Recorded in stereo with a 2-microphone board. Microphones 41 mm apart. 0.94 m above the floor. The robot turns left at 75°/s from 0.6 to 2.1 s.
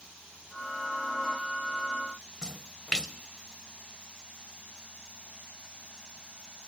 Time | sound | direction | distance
2.4 | a splash | 20° left (ahead or behind) | 0.7 m